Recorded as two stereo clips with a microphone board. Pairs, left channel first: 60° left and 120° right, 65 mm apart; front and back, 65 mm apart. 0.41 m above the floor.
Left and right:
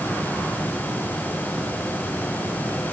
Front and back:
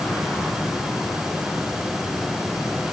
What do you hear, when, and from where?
Only background noise.